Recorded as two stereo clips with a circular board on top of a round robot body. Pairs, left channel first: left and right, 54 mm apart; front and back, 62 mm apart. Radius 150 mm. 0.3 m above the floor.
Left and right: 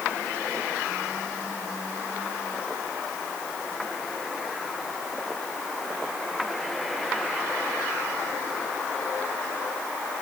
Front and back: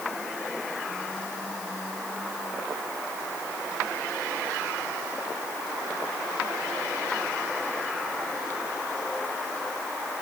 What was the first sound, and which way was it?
Only background noise.